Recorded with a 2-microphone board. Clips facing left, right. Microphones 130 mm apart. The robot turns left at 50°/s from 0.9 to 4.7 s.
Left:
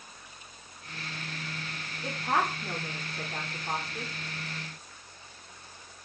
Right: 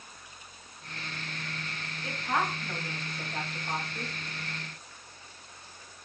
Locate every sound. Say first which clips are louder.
2.0 s a woman speaking: left 2 dB; 50° left (ahead or behind), 2.5 m; by 4.1 s 20° left (ahead or behind), 2.5 m